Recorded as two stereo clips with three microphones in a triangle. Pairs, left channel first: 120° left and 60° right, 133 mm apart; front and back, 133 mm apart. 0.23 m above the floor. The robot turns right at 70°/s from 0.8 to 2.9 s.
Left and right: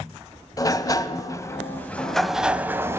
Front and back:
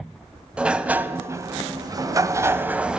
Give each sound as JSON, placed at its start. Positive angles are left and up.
{"t": 0.6, "sound": "a sliding door", "azimuth_deg": 110, "distance_m": 0.5}